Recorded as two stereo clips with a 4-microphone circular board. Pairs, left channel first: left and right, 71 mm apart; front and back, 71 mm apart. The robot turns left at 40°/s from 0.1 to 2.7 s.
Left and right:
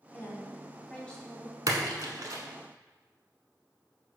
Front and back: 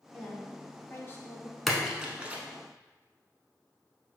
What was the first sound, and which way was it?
A woman speaking, 60° left.